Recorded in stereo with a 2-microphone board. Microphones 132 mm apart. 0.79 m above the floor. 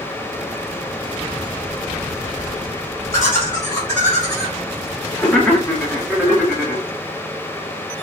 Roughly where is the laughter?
Left.